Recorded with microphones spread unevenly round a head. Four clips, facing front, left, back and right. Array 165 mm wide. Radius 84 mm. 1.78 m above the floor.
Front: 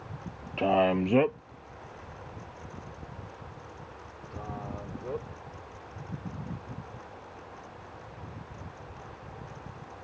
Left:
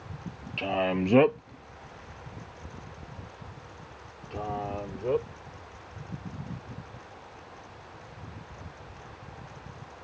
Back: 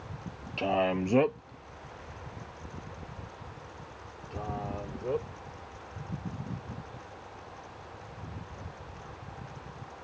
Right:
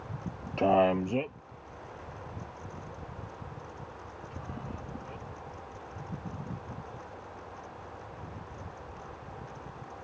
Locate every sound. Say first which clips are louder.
0.6 s a man speaking: right 4 dB, front 4 dB; 70° right; by 5.3 s 100° left